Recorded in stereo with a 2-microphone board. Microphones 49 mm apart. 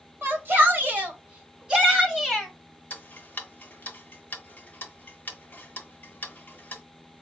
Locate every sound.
0.2 s a shout: 50° right (ahead or behind), 1.6 m; by 2.5 s 5° right (ahead or behind), 1.9 m
2.9 s ticking: 40° left (ahead or behind), 0.7 m